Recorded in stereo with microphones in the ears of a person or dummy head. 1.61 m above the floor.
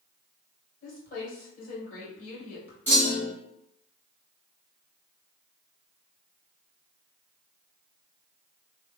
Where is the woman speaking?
50° left (ahead or behind), 2.0 m.